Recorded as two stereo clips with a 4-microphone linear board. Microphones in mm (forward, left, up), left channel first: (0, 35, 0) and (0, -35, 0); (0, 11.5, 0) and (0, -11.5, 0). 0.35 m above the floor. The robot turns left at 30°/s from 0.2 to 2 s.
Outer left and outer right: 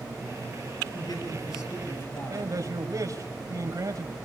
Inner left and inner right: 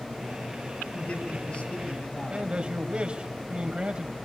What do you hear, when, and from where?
0.9 s a man speaking: 75° left, 7 m; by 2.5 s 45° left, 7 m
2.3 s a man speaking: 55° right (ahead or behind), 2 m